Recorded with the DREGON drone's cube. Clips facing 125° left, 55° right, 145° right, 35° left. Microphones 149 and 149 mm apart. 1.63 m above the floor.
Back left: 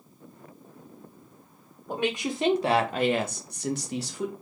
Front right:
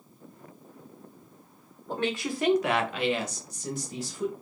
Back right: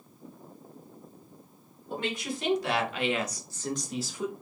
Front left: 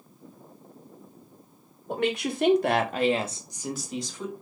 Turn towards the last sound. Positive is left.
turn(degrees=140)